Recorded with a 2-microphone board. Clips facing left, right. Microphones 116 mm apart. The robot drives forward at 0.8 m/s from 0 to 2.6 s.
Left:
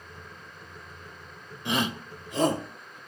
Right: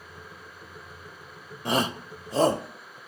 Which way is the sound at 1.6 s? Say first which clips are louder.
Right 2 dB; 40° right (ahead or behind).